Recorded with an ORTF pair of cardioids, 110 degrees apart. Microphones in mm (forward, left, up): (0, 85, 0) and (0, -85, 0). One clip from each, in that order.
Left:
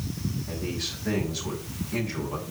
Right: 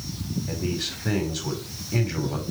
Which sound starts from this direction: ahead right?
A man speaking, at 0.5 s.